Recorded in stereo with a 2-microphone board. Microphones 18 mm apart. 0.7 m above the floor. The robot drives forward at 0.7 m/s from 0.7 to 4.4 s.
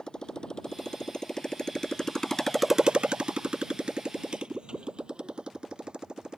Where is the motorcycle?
40° left (ahead or behind); by 6.4 s 45° right (ahead or behind).